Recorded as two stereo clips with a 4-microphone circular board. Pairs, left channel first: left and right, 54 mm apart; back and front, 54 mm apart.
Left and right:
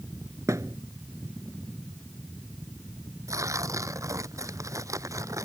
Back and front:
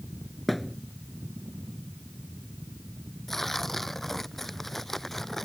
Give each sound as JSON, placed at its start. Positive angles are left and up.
{"t": 0.5, "sound": "a thud", "azimuth_deg": -90}
{"t": 3.3, "sound": "tearing paper", "azimuth_deg": -95}